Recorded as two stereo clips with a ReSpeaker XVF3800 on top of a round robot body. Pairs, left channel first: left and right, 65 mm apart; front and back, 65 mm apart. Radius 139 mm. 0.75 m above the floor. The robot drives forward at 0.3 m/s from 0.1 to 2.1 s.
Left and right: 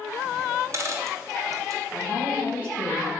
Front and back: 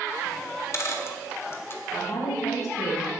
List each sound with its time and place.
0.5 s a dropped coin: 45° right, 1.6 m; by 1.8 s 55° right, 1.3 m
1.9 s a woman speaking: 20° right, 4 m